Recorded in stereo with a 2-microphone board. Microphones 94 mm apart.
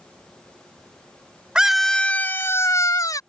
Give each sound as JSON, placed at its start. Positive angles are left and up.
{"t": 1.6, "sound": "a scream", "side_deg": -10}